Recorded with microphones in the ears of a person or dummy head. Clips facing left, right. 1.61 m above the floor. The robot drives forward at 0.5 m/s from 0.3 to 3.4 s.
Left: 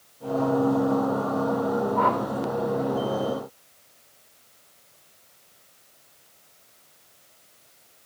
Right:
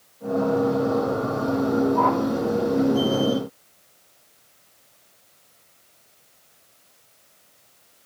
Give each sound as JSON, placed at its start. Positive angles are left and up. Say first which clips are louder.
{"t": 1.9, "sound": "a whoosh", "louder": "right 3 dB", "side_deg": 10, "distance_m": 1.0}